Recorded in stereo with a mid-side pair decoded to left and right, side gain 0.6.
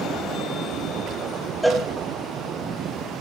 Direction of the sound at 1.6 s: Straight ahead.